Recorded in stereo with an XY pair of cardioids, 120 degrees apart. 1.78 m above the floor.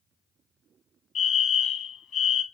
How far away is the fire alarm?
About 0.9 m.